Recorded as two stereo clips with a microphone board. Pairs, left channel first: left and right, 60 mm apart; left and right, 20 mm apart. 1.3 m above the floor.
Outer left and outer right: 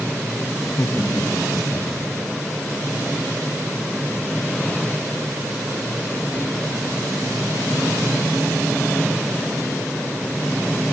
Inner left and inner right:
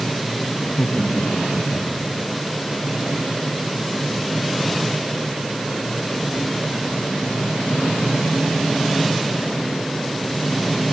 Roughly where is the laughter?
Left.